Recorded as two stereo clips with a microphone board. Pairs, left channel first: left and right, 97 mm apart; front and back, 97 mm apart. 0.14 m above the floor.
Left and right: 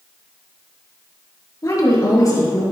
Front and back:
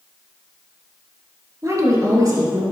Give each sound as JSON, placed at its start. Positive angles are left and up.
{"t": 1.6, "sound": "a woman speaking", "azimuth_deg": 135, "distance_m": 2.5}